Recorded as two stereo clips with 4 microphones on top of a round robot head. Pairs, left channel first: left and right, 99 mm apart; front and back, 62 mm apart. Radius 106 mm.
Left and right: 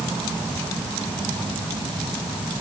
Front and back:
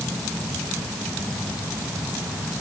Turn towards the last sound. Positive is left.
No sound to turn to.